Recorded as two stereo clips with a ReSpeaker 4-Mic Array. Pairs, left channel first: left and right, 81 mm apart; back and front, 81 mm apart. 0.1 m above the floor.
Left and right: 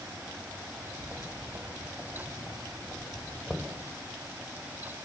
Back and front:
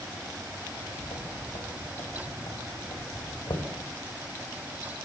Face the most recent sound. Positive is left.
turn(degrees=-175)